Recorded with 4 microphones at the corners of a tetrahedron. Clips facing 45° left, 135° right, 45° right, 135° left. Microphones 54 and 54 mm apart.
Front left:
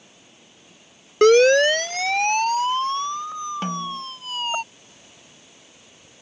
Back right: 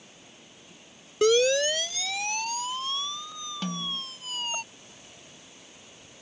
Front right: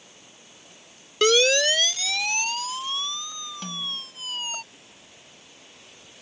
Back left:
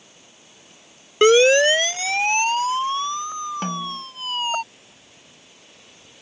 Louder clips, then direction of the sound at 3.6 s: Front left 6 dB, back left 7 dB; 95° left.